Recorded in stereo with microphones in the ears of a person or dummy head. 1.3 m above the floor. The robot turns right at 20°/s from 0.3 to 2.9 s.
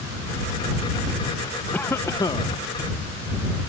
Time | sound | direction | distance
1.7 | a cough | 10° left (ahead or behind) | ?